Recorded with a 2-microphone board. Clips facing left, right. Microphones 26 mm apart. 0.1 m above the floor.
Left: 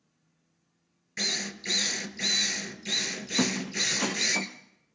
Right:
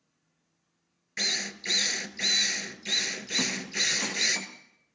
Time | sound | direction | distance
1.2 | a drill | 10° right (ahead or behind) | 0.7 m
3.4 | a squeak | 20° left (ahead or behind) | 1.3 m